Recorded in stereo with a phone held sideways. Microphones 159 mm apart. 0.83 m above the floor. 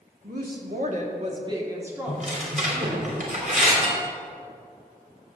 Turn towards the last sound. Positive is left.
turn(degrees=-40)  # may be behind; listen again after turning